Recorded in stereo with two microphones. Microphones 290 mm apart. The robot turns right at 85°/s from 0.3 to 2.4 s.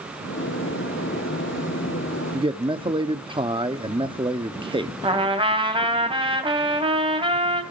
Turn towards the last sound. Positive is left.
turn(degrees=-20)  # may be behind; listen again after turning